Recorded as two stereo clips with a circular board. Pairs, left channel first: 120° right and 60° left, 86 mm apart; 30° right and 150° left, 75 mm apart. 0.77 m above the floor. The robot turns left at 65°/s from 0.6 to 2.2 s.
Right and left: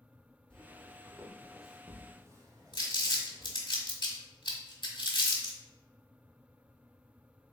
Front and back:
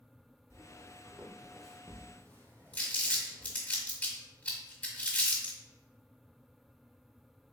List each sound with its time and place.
0.5 s footsteps: 45° right, 1.0 m; by 3.5 s 30° left, 1.7 m
2.7 s crumpling: 100° right, 1.5 m